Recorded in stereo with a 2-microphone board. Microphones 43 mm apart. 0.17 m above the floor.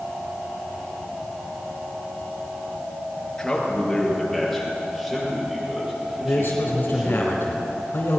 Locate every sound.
3.4 s a man speaking: 15° left (ahead or behind), 3 m; by 7.2 s 20° right (ahead or behind), 6.5 m
6.2 s a man speaking: 50° left (ahead or behind), 2.0 m